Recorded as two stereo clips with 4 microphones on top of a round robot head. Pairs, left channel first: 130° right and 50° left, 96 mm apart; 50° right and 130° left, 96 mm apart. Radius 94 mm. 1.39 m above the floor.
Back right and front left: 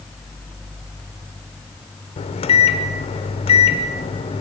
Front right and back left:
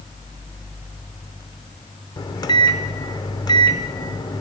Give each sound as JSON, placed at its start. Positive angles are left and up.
{"t": 2.2, "sound": "a microwave", "azimuth_deg": -100, "distance_m": 0.6}